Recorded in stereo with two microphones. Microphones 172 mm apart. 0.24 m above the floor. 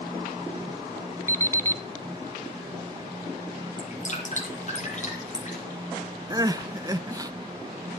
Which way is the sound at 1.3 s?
15° left (ahead or behind).